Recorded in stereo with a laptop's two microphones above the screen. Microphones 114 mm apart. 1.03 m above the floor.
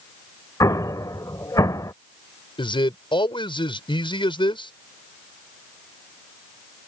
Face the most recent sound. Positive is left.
turn(degrees=45)  # may be behind; listen again after turning